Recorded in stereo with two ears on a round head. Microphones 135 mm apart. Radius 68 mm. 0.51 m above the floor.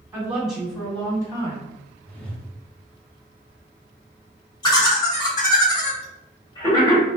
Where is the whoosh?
10° left (ahead or behind), 0.8 m.